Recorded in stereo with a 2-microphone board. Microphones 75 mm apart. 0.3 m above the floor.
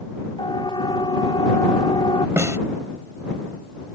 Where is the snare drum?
40° right (ahead or behind).